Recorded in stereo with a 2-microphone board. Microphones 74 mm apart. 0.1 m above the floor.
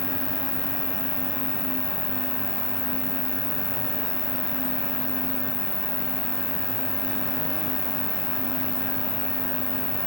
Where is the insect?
40° left (ahead or behind).